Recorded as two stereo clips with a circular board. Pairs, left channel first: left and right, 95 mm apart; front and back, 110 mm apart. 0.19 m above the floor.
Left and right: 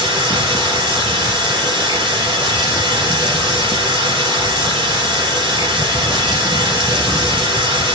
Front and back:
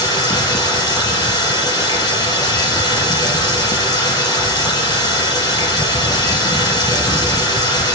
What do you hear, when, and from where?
0.0 s running water: 55° right, 4.5 m